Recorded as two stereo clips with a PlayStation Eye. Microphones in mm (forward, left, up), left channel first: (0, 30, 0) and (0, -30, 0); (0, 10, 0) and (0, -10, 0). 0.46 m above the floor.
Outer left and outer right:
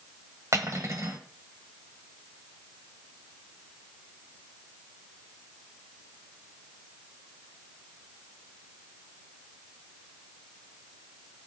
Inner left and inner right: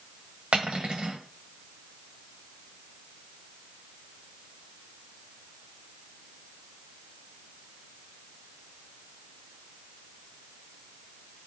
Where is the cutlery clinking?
55° right (ahead or behind), 1.4 m.